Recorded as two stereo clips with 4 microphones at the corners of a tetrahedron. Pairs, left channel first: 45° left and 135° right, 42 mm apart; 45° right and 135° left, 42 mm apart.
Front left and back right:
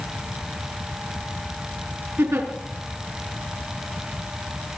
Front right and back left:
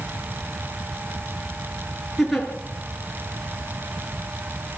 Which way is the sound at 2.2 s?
135° right.